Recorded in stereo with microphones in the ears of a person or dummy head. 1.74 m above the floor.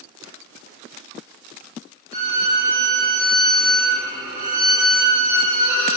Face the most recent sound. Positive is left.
turn(degrees=-25)  # may be behind; listen again after turning